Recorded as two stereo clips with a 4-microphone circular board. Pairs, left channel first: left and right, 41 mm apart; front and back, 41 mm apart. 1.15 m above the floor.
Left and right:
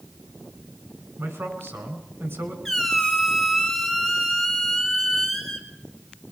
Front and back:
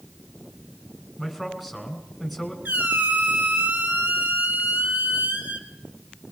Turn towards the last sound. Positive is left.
turn(degrees=170)